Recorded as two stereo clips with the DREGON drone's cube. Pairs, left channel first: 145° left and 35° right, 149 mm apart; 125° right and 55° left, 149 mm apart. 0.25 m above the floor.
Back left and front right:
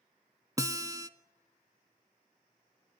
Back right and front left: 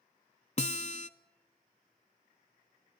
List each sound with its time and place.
0.6 s a guitar: 100° right, 0.8 m